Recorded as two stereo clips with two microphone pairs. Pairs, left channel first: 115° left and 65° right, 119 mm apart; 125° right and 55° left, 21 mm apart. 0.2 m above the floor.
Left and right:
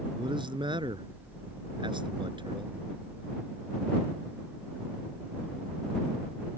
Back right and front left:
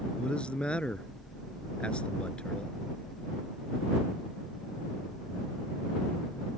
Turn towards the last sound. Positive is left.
turn(degrees=-105)